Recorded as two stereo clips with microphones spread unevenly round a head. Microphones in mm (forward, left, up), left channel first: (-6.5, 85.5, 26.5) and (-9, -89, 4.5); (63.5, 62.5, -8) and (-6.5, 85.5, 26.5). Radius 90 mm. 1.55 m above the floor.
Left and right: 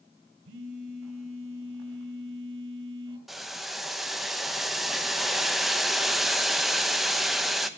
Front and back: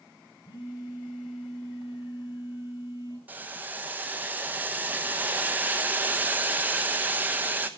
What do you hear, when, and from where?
0.5 s a phone buzzing: 90° right, 2 m
3.3 s boiling: 175° left, 0.8 m